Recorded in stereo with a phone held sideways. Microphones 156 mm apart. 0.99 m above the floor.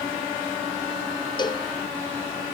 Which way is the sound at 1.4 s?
30° left (ahead or behind).